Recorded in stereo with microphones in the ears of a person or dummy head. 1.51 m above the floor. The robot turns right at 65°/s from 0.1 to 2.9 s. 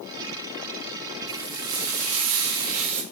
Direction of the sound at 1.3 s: 140° right.